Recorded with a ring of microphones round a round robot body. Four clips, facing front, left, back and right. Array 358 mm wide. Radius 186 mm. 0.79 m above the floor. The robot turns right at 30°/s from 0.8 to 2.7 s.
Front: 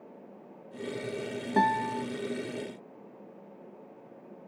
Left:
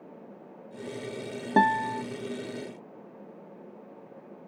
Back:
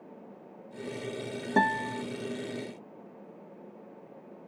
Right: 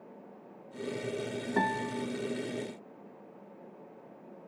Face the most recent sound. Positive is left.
turn(degrees=130)